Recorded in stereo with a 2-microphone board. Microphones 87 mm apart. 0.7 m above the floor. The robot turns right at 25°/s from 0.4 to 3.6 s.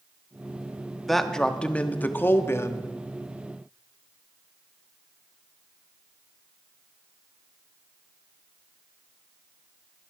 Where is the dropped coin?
No dropped coin in this recording.